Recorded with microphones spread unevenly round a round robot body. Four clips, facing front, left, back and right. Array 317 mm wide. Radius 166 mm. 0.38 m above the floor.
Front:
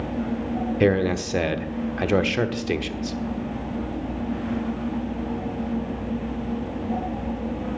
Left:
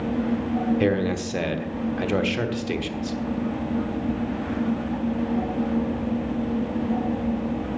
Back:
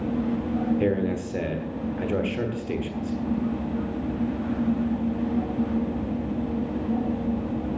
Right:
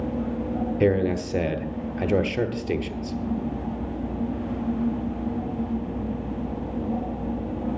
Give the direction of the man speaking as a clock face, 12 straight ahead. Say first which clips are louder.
Right 1 dB, front 4 dB; 1 o'clock.